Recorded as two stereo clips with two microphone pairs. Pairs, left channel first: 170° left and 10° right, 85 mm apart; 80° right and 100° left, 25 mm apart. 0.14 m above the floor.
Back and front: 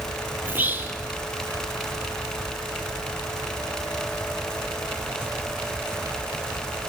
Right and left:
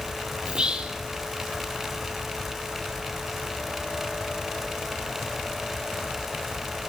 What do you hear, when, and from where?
0.5 s whispering: 60° left, 4.5 m